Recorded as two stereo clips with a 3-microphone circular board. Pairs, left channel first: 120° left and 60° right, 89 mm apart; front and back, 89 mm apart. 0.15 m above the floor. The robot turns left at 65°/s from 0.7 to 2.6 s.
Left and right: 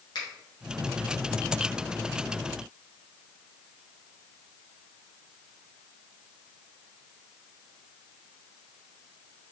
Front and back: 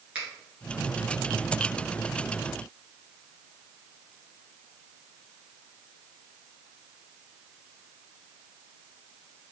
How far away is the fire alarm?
No fire alarm in this recording.